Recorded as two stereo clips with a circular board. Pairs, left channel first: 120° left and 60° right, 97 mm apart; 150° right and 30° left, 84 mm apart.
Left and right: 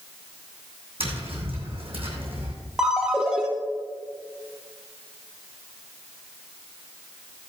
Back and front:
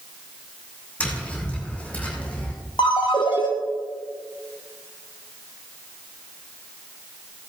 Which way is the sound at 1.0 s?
75° right.